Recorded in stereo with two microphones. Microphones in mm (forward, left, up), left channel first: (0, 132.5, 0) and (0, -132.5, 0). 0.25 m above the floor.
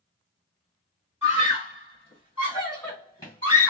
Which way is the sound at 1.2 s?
20° left (ahead or behind).